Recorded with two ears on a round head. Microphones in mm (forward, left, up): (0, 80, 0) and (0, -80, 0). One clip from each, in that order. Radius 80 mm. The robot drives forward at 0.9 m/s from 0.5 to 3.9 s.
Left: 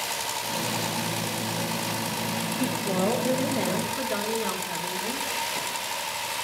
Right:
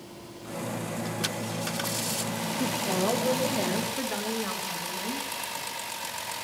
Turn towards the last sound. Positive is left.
turn(degrees=-15)  # may be behind; listen again after turning